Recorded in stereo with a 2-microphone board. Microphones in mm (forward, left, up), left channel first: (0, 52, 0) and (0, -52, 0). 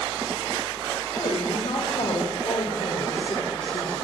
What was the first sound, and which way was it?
A woman speaking, 70° left (ahead or behind).